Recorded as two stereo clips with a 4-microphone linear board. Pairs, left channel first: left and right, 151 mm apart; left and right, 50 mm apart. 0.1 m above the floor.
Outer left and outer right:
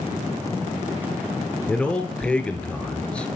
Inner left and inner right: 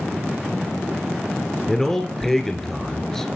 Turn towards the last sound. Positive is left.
turn(degrees=10)  # may be behind; listen again after turning